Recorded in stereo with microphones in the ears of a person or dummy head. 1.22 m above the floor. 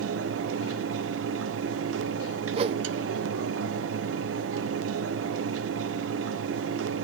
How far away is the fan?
About 0.8 m.